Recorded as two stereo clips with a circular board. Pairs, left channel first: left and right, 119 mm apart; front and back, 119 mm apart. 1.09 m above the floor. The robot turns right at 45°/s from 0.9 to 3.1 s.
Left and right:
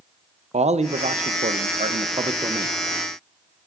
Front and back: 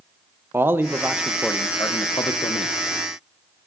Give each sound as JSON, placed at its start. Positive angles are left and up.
{"t": 0.5, "sound": "a man speaking", "azimuth_deg": -110, "distance_m": 0.5}